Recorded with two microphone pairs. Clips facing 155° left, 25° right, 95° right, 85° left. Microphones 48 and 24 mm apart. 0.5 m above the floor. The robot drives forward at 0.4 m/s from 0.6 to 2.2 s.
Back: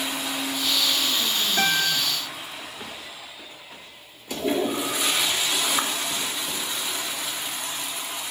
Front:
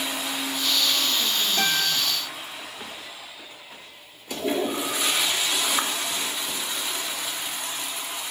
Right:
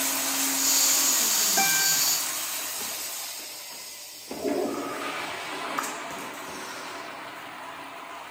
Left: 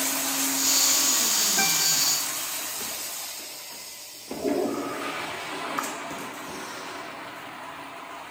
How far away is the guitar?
About 2.5 m.